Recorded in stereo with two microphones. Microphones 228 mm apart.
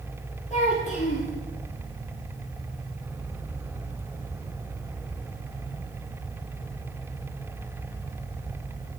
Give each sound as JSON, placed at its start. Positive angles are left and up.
{"t": 0.5, "sound": "a child speaking", "side_deg": 35, "distance_m": 8.0}